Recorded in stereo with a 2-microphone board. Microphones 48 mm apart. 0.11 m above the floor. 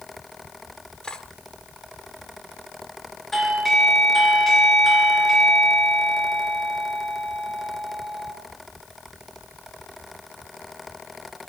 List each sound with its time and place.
1.0 s cutlery clinking: 15° left (ahead or behind), 1.1 m
3.3 s a doorbell: centre (ahead or behind), 2.5 m